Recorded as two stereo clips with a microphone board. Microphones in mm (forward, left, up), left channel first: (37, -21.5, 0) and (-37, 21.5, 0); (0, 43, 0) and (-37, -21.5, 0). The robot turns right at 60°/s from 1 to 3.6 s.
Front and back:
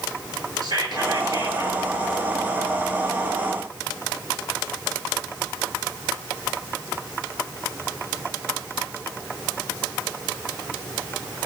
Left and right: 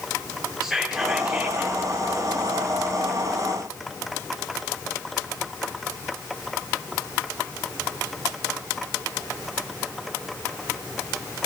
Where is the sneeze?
I don't hear a sneeze.